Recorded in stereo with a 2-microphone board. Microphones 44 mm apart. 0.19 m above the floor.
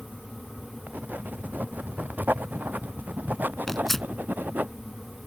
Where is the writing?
40° right (ahead or behind).